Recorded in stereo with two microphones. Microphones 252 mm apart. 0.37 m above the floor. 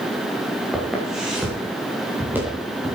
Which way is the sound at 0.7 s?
Centre (ahead or behind).